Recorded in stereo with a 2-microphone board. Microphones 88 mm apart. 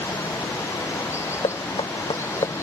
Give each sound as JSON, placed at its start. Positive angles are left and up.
{"t": 0.0, "sound": "running water", "side_deg": 30}
{"t": 1.4, "sound": "knocking", "side_deg": 80}